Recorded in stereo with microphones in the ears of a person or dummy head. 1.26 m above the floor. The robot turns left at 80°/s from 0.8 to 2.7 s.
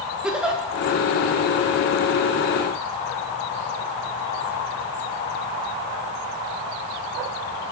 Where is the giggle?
5° right (ahead or behind), 0.8 m.